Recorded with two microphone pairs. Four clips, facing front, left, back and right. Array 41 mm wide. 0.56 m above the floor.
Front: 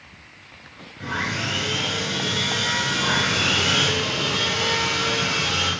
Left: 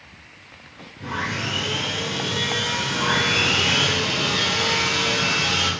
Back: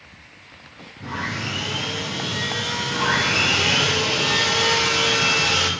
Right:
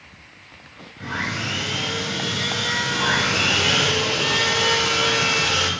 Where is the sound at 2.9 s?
145° right, 2.5 m.